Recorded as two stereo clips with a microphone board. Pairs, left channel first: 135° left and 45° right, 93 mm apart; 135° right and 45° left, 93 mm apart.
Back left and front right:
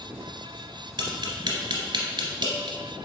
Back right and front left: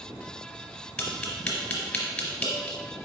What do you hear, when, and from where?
1.0 s tapping: 60° right, 1.0 m